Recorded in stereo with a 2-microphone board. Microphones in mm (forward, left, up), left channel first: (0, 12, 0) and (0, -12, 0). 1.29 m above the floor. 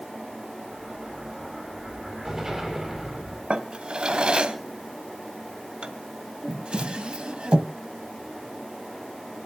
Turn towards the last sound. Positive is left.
turn(degrees=-35)  # may be behind; listen again after turning